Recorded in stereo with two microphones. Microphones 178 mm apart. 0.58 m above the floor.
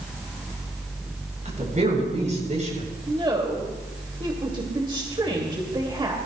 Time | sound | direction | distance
1.4 | a woman speaking | 40° right (ahead or behind) | 7.5 m
3.1 | a woman speaking | 25° right (ahead or behind) | 2.5 m